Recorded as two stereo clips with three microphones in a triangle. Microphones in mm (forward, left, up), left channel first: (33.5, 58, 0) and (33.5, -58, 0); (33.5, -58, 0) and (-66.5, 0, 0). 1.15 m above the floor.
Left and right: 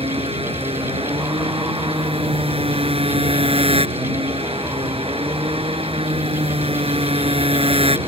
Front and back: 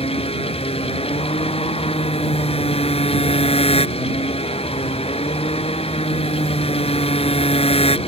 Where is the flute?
No flute in this recording.